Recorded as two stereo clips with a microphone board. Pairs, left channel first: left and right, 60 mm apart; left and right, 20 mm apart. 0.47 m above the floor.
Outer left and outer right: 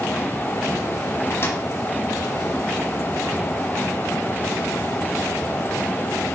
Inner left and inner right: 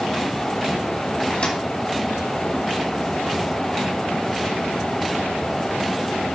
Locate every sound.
1.3 s a microwave: 45° left (ahead or behind), 3 m